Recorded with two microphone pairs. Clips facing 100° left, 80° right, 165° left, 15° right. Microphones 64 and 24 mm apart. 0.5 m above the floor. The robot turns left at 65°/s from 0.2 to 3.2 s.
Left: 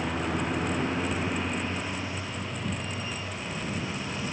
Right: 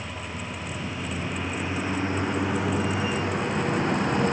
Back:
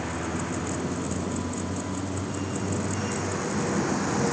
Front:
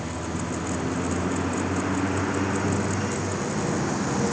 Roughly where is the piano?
I don't hear a piano.